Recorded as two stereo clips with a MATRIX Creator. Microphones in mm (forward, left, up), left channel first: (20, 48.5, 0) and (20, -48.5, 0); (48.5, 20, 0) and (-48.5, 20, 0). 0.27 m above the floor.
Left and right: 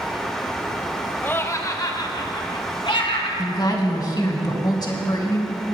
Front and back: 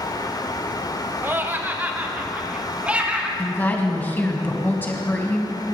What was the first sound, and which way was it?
Laughter, 140° left.